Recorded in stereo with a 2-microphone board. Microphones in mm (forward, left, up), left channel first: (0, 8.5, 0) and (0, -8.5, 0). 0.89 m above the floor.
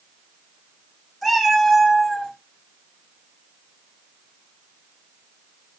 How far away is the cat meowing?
About 2.5 m.